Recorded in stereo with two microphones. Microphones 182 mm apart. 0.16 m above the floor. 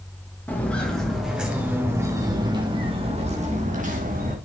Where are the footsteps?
10° left (ahead or behind), 4.5 m; by 4.4 s 50° right (ahead or behind), 5 m.